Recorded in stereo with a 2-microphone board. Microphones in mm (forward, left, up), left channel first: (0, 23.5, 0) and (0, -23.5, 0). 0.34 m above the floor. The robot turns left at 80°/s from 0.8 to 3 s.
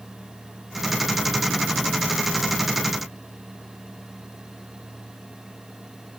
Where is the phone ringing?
I don't hear a phone ringing.